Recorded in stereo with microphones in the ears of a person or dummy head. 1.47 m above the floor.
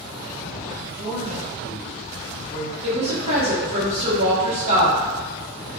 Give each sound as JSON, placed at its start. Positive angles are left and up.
{"t": 0.9, "sound": "a man speaking", "side_deg": -20, "distance_m": 1.2}
{"t": 2.8, "sound": "a woman speaking", "side_deg": -35, "distance_m": 0.8}